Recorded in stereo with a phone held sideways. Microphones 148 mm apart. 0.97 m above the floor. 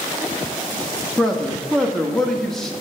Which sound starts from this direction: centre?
A man speaking, at 1.2 s.